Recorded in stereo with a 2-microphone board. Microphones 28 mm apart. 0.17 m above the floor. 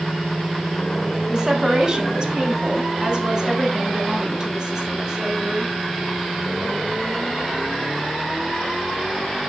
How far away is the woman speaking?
About 1.1 m.